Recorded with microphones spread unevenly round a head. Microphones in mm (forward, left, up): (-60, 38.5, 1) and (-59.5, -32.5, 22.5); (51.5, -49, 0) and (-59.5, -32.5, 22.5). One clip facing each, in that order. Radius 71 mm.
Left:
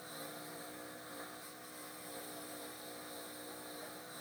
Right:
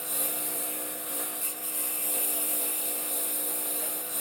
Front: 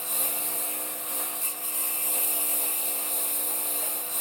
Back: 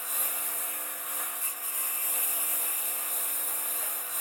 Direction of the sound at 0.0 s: 70° right.